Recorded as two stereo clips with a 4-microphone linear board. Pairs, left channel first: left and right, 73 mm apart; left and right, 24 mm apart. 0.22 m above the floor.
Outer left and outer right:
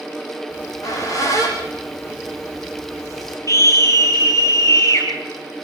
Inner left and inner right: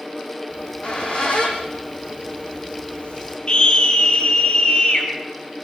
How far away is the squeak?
About 7 m.